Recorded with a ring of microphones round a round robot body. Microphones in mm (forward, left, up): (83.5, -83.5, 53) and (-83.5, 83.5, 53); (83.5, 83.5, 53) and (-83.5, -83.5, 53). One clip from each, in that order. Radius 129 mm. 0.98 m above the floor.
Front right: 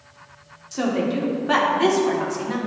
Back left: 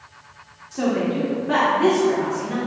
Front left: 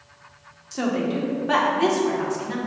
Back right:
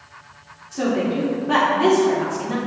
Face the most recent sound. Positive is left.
turn(degrees=-15)